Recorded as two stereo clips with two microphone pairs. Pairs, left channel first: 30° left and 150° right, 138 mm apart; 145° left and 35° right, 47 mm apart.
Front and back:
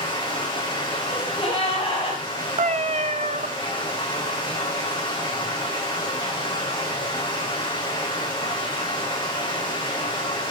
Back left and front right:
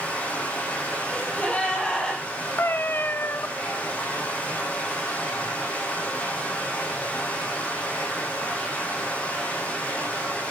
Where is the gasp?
70° left, 7 m.